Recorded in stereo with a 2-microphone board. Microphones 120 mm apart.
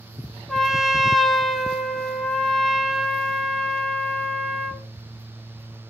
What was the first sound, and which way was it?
A trumpet, centre (ahead or behind).